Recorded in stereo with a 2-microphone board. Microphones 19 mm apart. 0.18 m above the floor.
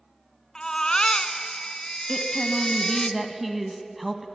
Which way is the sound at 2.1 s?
5° right (ahead or behind).